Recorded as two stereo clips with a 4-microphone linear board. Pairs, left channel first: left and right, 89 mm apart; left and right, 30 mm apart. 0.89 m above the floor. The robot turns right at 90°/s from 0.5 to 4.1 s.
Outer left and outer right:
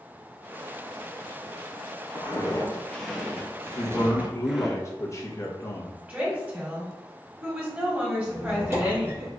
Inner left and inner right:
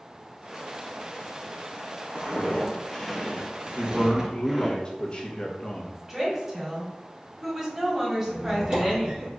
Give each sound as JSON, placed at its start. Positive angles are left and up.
{"t": 2.1, "sound": "footsteps", "side_deg": 60, "distance_m": 1.7}
{"t": 3.8, "sound": "a man speaking", "azimuth_deg": 45, "distance_m": 0.9}
{"t": 6.1, "sound": "a woman speaking", "side_deg": -20, "distance_m": 2.0}
{"t": 8.3, "sound": "a squeak", "side_deg": -30, "distance_m": 1.7}